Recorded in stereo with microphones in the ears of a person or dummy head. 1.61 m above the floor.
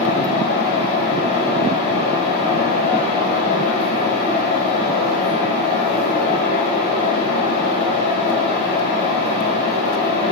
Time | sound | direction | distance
0.0 | a fan | 55° left (ahead or behind) | 1.6 m